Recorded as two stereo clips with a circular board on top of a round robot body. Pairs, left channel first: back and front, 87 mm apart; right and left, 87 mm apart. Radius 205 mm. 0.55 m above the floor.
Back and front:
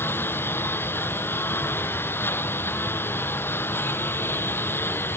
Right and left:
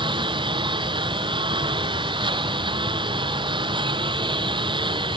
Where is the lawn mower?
115° left.